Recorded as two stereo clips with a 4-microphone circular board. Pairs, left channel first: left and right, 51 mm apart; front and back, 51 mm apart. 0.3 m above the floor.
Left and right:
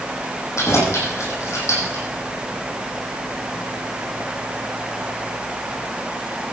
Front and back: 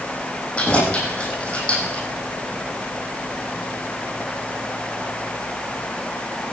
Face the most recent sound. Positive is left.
turn(degrees=65)